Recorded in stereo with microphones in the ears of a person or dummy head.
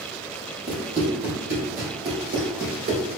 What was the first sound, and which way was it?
Running footsteps, 25° right (ahead or behind).